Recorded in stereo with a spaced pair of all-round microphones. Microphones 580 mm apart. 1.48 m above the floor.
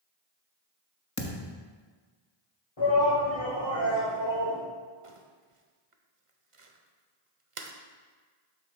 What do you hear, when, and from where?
1.2 s a thud: 30° left (ahead or behind), 1.0 m
2.8 s a shout: 50° left (ahead or behind), 2.5 m
5.0 s crumpling: 60° right (ahead or behind), 0.9 m